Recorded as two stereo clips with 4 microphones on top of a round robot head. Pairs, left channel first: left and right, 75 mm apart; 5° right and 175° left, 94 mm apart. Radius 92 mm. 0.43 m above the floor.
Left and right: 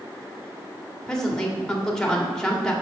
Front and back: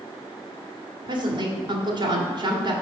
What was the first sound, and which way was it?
A woman speaking, 170° left.